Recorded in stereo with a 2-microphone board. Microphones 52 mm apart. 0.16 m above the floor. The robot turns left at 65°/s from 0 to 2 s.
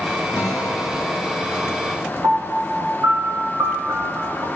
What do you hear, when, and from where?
0.3 s a guitar: 95° left, 9 m; by 2.1 s 15° right, 9 m
2.2 s a piano: 70° right (ahead or behind), 4 m